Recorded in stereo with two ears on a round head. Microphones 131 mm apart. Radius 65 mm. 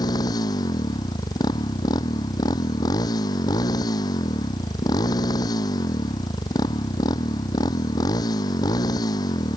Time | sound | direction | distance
0.0 | a motorcycle | 25° left (ahead or behind) | ?